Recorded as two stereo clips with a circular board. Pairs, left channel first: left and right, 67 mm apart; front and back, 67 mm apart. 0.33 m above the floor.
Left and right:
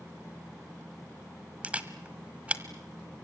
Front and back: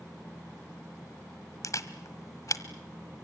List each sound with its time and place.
1.6 s a camera shutter: 20° right, 1.4 m